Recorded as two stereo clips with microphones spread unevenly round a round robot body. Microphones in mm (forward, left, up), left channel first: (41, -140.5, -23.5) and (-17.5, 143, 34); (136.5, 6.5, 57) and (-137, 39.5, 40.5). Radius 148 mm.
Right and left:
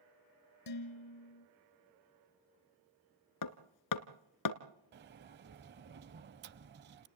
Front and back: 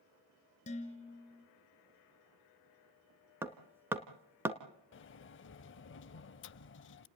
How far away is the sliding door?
About 0.5 m.